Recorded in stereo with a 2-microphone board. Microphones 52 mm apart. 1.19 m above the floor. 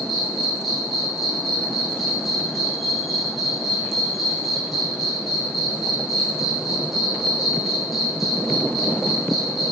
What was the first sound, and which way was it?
An insect, centre (ahead or behind).